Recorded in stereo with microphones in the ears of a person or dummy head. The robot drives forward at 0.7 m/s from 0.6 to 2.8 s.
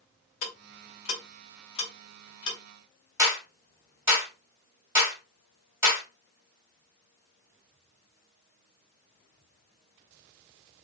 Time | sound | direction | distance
0.4 | ticking | 50° left (ahead or behind) | 1.9 m
3.2 | a clap | 15° right (ahead or behind) | 2.5 m